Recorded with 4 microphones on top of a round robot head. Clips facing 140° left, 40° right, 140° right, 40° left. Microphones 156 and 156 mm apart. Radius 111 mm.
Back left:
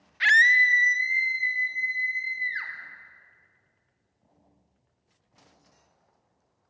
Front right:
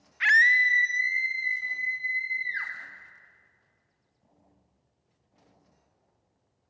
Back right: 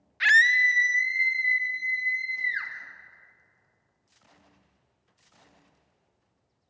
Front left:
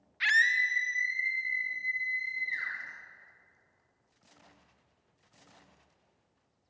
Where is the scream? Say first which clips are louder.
Back left 2 dB, back right 7 dB; 170° right, 1.1 m; by 2.7 s 135° right, 4.5 m.